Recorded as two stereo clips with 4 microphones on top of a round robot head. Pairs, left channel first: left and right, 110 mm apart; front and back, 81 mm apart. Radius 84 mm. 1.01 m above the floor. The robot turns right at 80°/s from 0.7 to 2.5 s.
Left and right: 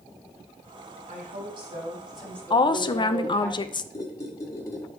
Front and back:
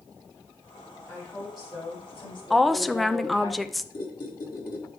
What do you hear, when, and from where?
1.1 s a woman speaking: 90° right, 3.5 m; by 3.5 s 25° left, 3.5 m
2.5 s a woman speaking: 90° left, 0.6 m
3.9 s a squeak: 30° left, 2.0 m